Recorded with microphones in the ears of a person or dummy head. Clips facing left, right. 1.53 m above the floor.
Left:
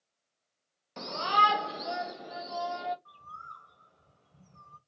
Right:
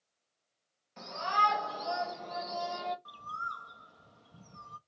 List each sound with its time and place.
1.0 s a shout: 60° left (ahead or behind), 0.6 m; by 3.0 s centre (ahead or behind), 1.2 m
3.0 s a bird: 70° right (ahead or behind), 0.6 m